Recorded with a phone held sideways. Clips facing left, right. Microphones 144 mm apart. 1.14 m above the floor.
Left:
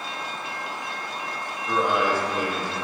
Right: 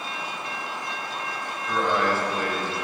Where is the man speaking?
10° left (ahead or behind), 1.1 m.